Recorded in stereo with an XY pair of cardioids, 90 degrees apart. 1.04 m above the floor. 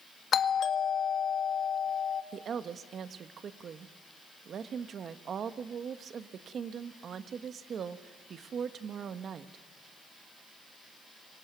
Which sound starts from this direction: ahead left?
A doorbell, at 0.3 s.